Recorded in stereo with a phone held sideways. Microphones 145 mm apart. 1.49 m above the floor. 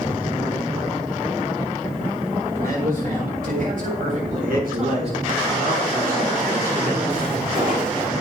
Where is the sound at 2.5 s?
85° right, 4.5 m; by 5.3 s 50° right (ahead or behind), 6 m.